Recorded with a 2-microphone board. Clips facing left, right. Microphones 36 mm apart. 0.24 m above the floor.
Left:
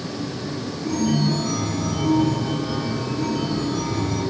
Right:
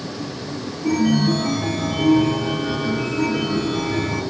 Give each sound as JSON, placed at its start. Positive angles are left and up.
{"t": 0.8, "sound": "a chime", "side_deg": -60, "distance_m": 2.5}